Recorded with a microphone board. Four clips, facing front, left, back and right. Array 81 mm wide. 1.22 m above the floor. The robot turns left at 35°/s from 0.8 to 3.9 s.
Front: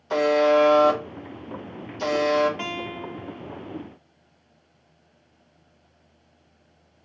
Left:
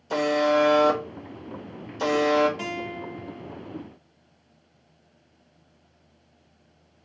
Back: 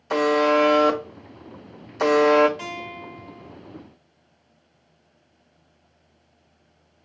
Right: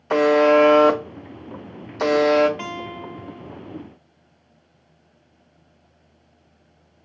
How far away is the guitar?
About 1.0 m.